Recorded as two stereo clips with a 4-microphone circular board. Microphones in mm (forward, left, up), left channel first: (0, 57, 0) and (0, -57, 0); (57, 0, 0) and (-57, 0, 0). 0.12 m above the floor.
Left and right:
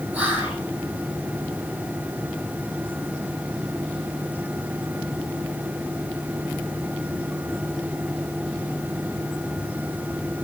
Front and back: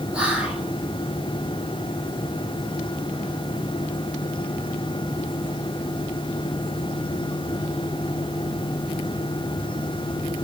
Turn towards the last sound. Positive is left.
turn(degrees=-125)